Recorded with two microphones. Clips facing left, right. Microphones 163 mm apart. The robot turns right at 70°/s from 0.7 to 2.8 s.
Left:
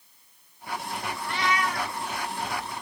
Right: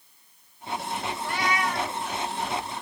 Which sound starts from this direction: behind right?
A cat meowing, at 1.2 s.